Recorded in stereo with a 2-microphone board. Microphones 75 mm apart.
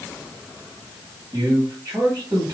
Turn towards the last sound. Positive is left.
turn(degrees=-50)  # may be behind; listen again after turning